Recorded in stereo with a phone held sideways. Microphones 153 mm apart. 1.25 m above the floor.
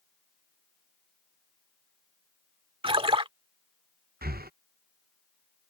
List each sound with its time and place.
2.8 s a splash: 35° right (ahead or behind)
4.2 s breathing: 80° right